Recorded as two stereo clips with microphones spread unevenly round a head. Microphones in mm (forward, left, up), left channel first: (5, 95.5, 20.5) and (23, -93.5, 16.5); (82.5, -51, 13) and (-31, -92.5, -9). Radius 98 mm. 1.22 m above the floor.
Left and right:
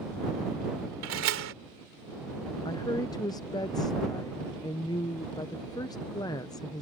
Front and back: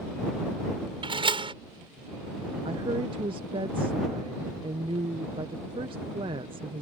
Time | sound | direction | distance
1.0 | a door slam | 110° right | ?
2.6 | a woman speaking | 165° left | ?